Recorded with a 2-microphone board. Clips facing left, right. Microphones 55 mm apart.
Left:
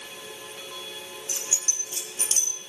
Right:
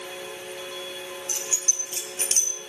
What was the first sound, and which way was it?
Keys jangling, 65° right (ahead or behind).